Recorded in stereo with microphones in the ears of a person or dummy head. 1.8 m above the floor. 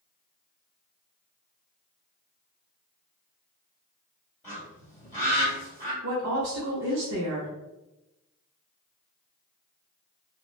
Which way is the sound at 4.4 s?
5° left (ahead or behind).